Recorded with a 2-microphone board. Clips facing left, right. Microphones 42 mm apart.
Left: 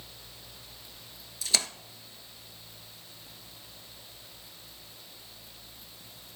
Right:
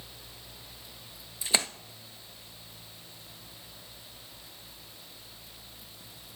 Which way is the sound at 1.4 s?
25° right (ahead or behind).